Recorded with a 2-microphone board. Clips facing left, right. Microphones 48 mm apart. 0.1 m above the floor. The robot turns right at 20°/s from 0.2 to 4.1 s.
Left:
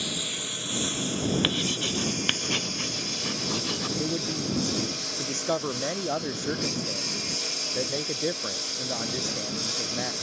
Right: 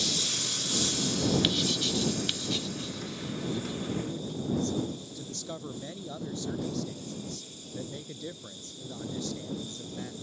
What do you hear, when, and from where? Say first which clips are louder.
0.0 s a lawn mower: left 1 dB; 15° left; by 10.2 s 95° left
1.4 s writing: left 1 dB; 35° left (ahead or behind); by 3.9 s 80° left
4.0 s a man speaking: left 5 dB; 50° left (ahead or behind)